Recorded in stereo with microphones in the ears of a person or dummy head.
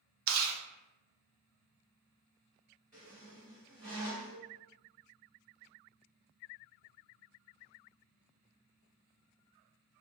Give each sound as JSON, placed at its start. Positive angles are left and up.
{"t": 0.3, "sound": "chewing", "side_deg": -50, "distance_m": 0.5}
{"t": 2.9, "sound": "a squeak", "side_deg": 0, "distance_m": 1.5}